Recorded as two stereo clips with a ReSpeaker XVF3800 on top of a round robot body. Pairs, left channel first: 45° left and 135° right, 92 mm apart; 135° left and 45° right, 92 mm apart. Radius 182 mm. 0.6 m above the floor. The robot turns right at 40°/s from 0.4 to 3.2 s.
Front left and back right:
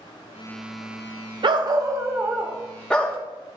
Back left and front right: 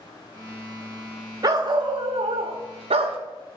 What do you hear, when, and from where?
1.4 s a dog barking: 95° right, 0.7 m; by 3.2 s 25° right, 0.7 m